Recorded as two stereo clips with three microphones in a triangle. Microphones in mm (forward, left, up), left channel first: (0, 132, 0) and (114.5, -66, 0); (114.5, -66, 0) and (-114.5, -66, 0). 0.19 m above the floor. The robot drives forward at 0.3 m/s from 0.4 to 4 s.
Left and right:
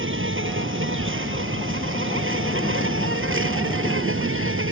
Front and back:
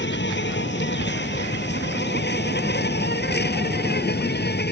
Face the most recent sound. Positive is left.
turn(degrees=-40)